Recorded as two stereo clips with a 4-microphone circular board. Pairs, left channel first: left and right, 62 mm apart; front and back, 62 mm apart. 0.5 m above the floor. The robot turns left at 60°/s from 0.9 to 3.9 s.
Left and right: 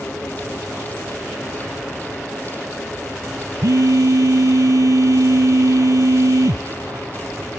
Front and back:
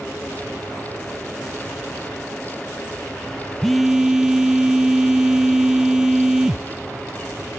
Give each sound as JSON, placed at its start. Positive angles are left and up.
{"t": 3.6, "sound": "a phone buzzing", "azimuth_deg": -80}